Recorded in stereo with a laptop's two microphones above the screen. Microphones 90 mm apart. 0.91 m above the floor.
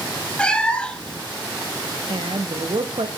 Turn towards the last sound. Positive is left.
turn(degrees=-75)  # may be behind; listen again after turning